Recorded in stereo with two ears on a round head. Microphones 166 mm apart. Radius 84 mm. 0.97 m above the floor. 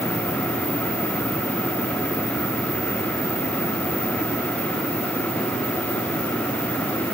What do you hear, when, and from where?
Only background noise.